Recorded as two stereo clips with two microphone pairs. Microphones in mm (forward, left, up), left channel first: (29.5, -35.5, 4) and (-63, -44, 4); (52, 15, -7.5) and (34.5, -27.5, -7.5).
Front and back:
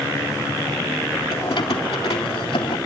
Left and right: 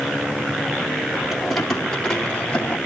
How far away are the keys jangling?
About 2.5 m.